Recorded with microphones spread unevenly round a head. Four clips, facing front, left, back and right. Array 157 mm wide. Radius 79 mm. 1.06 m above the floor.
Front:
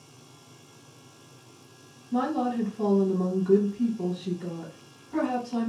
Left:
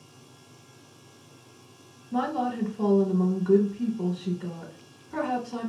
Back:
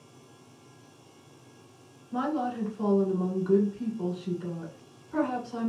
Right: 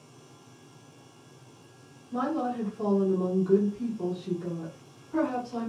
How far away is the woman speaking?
About 1.0 m.